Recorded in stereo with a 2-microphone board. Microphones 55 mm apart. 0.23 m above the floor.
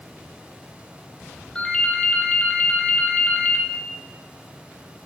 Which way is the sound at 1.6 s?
15° left (ahead or behind).